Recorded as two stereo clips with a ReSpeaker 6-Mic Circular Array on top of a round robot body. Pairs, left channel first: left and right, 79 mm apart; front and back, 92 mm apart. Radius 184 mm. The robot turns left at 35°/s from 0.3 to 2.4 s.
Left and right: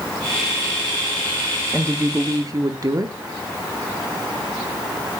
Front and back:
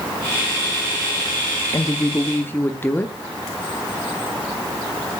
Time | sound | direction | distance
1.7 | a woman speaking | 40° right | 1.1 m